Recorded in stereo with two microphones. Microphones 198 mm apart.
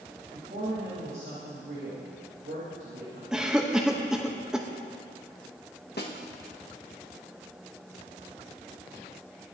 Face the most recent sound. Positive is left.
turn(degrees=55)  # may be behind; listen again after turning